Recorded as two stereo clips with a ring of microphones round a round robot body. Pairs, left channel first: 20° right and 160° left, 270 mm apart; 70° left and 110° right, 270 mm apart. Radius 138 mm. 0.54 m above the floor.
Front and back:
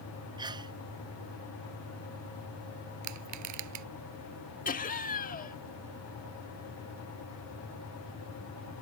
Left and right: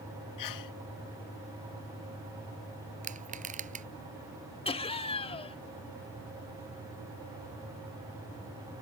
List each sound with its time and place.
0.4 s a sneeze: 85° left
3.0 s crushing: 175° right
4.7 s laughter: 10° left